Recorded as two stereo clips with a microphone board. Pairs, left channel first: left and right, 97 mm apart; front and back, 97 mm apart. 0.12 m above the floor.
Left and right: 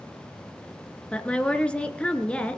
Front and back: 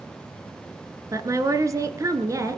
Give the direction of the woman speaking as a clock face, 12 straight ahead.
7 o'clock.